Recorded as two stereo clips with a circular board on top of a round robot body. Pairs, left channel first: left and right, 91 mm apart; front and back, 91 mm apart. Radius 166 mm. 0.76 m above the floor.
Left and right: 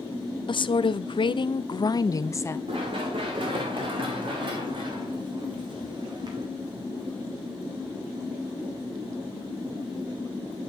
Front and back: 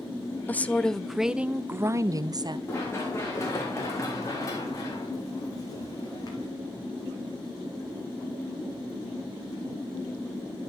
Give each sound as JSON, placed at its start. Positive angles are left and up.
{"t": 0.5, "sound": "a woman speaking", "azimuth_deg": 70, "distance_m": 1.0}
{"t": 2.7, "sound": "running footsteps", "azimuth_deg": -65, "distance_m": 5.0}